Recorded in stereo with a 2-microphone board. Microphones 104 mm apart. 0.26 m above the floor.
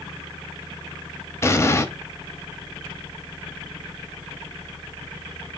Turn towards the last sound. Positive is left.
turn(degrees=25)  # may be behind; listen again after turning